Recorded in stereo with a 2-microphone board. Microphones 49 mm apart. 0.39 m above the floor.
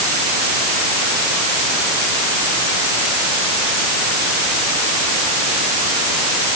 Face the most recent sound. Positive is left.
No sound to turn to.